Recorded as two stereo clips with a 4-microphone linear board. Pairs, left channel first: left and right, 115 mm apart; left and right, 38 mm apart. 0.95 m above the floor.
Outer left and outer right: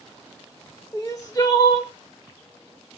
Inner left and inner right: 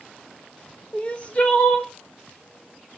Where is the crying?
30° left (ahead or behind), 0.9 m.